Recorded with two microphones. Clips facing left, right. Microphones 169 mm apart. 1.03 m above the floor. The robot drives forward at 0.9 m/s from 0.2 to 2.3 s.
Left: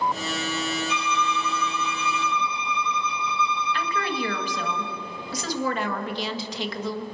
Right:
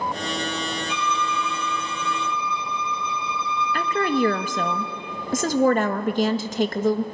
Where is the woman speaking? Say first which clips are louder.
Right 11 dB; 45° right (ahead or behind), 1.5 m.